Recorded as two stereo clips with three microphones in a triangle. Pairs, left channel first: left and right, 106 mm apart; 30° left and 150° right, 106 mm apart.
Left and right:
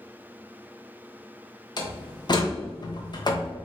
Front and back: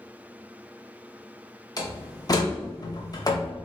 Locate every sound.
1.8 s a door slam: 65° left, 0.8 m